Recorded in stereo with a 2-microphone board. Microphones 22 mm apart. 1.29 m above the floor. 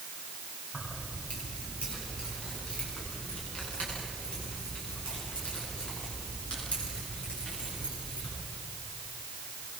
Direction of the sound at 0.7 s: 85° left.